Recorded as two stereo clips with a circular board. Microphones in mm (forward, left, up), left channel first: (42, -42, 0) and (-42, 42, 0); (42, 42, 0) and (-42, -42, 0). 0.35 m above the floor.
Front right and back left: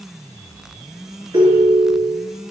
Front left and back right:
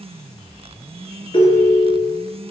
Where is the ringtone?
85° left, 1.9 m.